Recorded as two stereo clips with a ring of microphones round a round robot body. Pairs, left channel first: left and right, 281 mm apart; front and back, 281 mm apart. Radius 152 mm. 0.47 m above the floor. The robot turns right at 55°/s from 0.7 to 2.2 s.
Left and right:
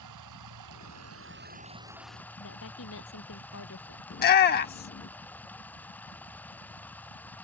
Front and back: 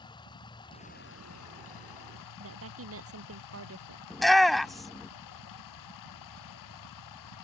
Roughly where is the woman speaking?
Behind left.